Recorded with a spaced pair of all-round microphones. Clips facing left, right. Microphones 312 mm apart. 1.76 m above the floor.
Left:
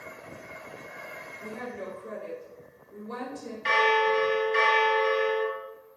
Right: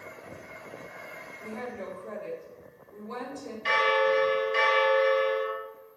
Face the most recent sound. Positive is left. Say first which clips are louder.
# even
turn(degrees=65)  # may be behind; listen again after turning